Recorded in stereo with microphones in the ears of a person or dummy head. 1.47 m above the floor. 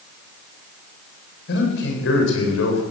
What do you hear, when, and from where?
1.5 s a man speaking: 60° left (ahead or behind), 6.5 m; by 2.8 s 75° left (ahead or behind), 6.5 m